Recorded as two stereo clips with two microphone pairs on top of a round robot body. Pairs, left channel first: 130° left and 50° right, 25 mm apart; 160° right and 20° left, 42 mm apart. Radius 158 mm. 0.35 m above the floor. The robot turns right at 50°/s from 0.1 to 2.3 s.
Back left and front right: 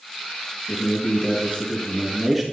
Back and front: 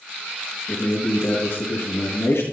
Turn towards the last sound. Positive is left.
turn(degrees=-145)